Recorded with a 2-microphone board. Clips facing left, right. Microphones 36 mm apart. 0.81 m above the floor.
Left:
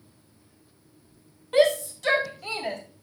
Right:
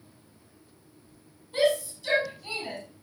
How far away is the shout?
About 3.5 m.